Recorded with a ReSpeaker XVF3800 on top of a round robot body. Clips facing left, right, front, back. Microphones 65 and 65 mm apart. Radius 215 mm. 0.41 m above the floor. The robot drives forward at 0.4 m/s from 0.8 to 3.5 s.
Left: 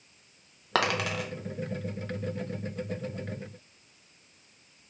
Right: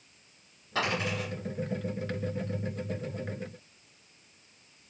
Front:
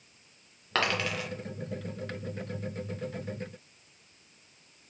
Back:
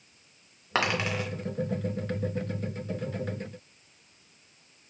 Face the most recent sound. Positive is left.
turn(degrees=155)